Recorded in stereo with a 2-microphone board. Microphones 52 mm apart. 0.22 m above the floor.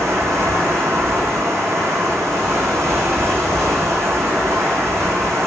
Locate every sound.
0.0 s running water: 70° right (ahead or behind), 1.2 m